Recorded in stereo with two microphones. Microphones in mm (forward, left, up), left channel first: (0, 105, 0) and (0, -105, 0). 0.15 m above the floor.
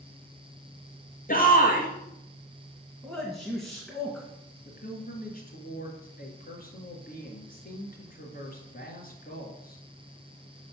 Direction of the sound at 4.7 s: 45° left (ahead or behind).